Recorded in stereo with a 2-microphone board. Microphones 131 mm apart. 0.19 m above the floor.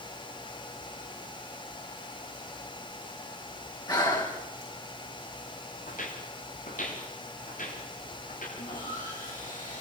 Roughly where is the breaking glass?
I don't hear breaking glass.